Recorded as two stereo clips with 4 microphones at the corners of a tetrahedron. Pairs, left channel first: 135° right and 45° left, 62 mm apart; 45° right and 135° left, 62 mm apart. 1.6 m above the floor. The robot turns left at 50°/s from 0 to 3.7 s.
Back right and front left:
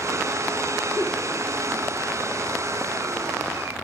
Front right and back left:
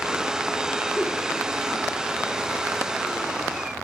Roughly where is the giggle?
Ahead left.